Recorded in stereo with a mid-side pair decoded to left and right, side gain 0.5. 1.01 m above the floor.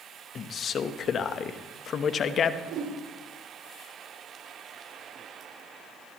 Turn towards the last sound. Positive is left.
turn(degrees=-65)